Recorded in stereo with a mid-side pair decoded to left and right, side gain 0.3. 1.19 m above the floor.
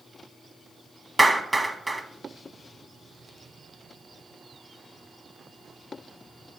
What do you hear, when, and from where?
1.2 s a clap: 20° right, 1.2 m